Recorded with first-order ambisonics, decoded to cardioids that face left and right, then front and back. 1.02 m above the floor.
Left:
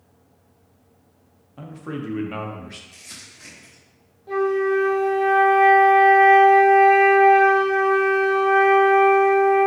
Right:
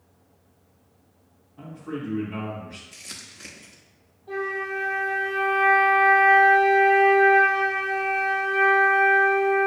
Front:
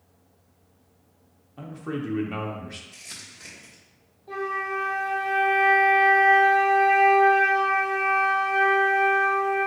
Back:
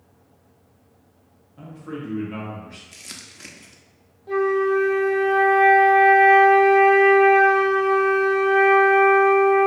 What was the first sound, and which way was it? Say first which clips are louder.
A man speaking: left 2 dB, front 2 dB; 60° left.